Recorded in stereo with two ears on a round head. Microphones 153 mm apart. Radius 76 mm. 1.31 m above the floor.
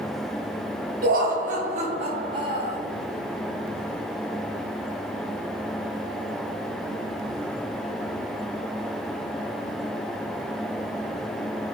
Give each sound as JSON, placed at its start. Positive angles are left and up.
{"t": 1.0, "sound": "laughter", "side_deg": -55, "distance_m": 1.1}